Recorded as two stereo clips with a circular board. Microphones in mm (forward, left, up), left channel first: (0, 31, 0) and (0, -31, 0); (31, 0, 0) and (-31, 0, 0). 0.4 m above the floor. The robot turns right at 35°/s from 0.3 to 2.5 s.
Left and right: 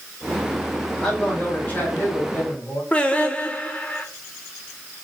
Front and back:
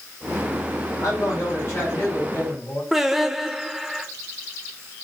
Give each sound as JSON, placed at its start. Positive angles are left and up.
{"t": 1.0, "sound": "a man speaking", "azimuth_deg": 10, "distance_m": 3.0}
{"t": 2.9, "sound": "singing", "azimuth_deg": 105, "distance_m": 0.6}